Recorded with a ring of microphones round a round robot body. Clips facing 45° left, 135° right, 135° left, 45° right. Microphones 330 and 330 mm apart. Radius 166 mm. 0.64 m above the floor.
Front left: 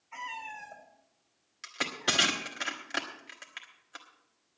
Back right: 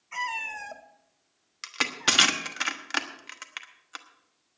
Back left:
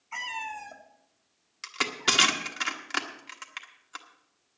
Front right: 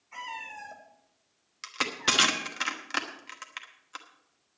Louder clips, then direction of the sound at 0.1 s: Back right 6 dB, back left 4 dB; 165° right.